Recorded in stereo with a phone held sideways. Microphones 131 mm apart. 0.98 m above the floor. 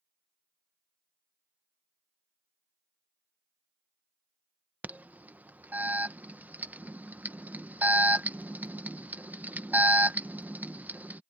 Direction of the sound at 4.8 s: 10° right (ahead or behind).